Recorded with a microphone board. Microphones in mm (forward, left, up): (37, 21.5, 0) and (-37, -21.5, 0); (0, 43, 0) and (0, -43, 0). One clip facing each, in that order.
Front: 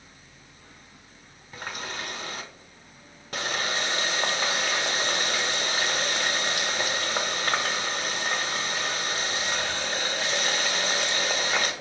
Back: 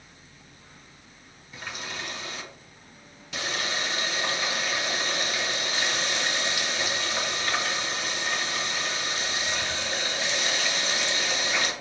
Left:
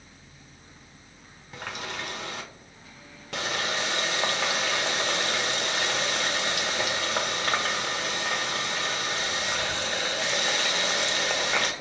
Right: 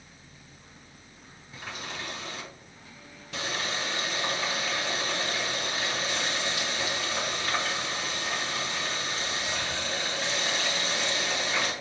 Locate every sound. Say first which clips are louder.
1.5 s a running tap: front 2 dB, left 3 dB; 70° left, 1.2 m